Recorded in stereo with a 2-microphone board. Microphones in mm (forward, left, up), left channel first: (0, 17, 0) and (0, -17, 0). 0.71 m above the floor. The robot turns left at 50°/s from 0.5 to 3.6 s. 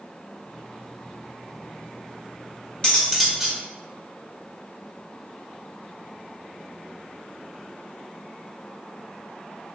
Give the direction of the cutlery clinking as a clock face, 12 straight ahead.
11 o'clock.